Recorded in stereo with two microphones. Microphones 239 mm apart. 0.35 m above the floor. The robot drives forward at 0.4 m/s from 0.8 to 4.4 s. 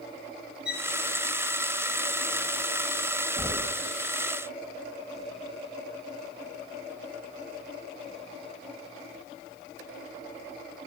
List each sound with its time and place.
0.7 s a violin: 55° right (ahead or behind), 2.5 m
3.4 s knocking: 15° left (ahead or behind), 1.0 m